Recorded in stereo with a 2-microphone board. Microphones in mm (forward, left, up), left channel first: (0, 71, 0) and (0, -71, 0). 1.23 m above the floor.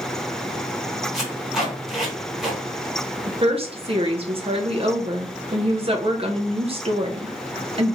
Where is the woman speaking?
40° right (ahead or behind), 0.8 m.